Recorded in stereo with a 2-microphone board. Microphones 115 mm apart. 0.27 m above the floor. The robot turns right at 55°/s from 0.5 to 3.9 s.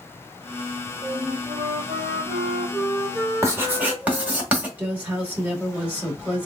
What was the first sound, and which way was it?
A flute, 150° right.